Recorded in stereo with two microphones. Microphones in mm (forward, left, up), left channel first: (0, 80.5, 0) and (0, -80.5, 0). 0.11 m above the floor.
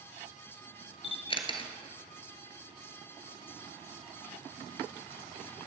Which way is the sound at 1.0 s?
35° left (ahead or behind).